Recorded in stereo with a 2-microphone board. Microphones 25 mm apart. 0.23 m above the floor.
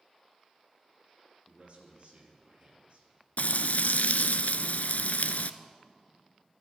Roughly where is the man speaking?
Right.